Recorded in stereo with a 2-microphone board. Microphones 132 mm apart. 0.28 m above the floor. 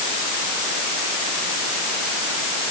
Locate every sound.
Only background noise.